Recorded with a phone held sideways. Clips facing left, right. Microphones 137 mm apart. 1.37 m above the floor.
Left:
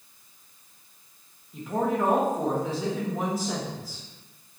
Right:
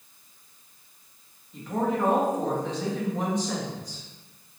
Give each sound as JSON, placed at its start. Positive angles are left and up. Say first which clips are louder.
{"t": 1.5, "sound": "a woman speaking", "louder": "left 1 dB", "side_deg": 5, "distance_m": 1.3}